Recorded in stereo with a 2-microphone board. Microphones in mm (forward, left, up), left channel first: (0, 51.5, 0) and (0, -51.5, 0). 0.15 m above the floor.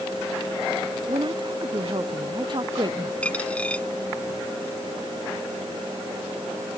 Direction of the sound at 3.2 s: 10° left (ahead or behind).